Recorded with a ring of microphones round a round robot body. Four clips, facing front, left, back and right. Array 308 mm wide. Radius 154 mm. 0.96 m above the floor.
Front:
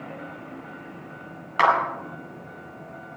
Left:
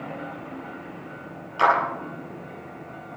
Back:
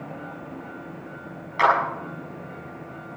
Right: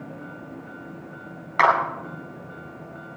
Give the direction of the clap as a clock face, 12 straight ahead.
2 o'clock.